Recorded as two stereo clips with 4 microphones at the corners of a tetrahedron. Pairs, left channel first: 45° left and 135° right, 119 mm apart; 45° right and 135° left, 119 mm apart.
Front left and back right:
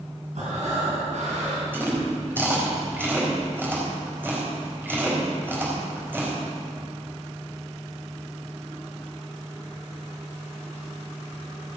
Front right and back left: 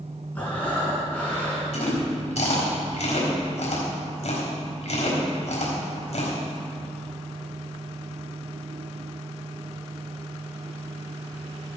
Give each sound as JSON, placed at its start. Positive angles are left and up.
{"t": 0.3, "sound": "breathing", "azimuth_deg": -120, "distance_m": 4.5}
{"t": 1.7, "sound": "chewing", "azimuth_deg": -60, "distance_m": 4.0}